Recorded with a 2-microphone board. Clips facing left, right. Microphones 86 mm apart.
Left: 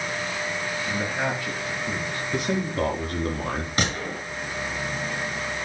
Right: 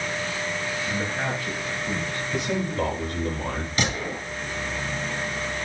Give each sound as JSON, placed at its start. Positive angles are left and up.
{"t": 0.9, "sound": "a man speaking", "side_deg": 15, "distance_m": 4.5}
{"t": 2.3, "sound": "a man speaking", "side_deg": 55, "distance_m": 3.5}
{"t": 3.8, "sound": "a gunshot", "side_deg": 45, "distance_m": 6.0}